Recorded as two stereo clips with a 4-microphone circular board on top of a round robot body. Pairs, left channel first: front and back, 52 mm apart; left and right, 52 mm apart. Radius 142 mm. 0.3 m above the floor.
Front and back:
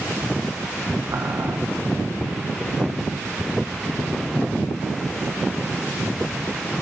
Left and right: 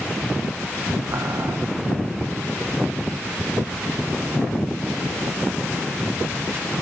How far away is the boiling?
About 0.6 m.